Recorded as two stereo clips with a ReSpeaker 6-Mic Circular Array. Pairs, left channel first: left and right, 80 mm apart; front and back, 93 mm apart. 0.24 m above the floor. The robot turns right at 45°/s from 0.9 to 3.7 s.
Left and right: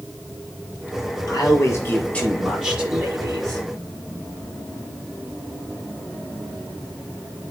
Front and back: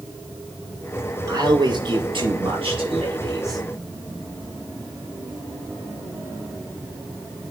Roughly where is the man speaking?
Behind left.